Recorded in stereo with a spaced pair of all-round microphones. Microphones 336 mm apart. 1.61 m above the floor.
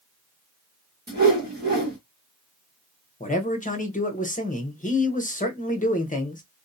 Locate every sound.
1.1 s a whoosh: 30° right (ahead or behind), 1.3 m
3.2 s a man speaking: 25° left (ahead or behind), 0.9 m